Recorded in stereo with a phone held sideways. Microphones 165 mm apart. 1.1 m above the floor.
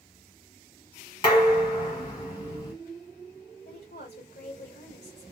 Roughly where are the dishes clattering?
Left.